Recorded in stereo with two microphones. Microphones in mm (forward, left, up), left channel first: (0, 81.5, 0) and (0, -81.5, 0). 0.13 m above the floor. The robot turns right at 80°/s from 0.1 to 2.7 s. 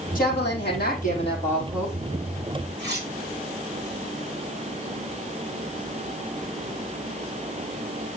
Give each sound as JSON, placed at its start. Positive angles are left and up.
{"t": 0.1, "sound": "a woman speaking", "azimuth_deg": 55, "distance_m": 5.0}
{"t": 2.8, "sound": "cutlery clinking", "side_deg": -80, "distance_m": 6.0}